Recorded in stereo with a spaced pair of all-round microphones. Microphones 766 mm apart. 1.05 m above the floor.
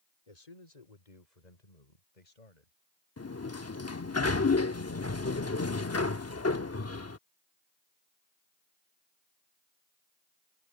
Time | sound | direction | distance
0.3 | a man speaking | 55° left (ahead or behind) | ?
3.2 | a sliding door | 20° left (ahead or behind) | ?